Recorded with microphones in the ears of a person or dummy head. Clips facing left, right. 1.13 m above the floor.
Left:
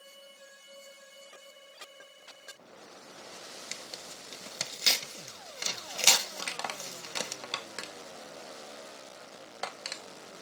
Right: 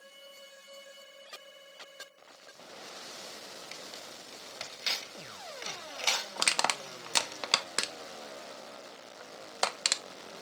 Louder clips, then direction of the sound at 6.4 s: Right 5 dB; 65° right (ahead or behind).